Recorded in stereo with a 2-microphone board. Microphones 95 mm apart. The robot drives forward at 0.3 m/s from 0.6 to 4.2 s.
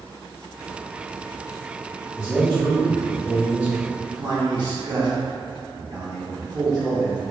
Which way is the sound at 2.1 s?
10° right (ahead or behind).